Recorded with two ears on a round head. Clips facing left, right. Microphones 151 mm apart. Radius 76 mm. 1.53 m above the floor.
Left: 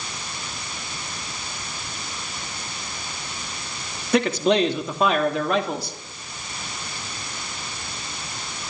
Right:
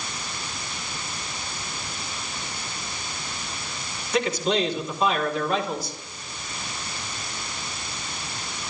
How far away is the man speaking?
About 2.5 m.